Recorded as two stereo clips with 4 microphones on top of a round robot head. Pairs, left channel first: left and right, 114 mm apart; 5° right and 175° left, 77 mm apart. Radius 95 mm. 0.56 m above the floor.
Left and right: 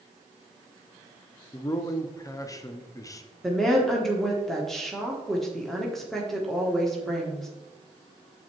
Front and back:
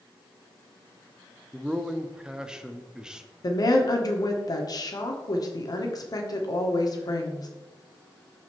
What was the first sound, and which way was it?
A man speaking, 100° left.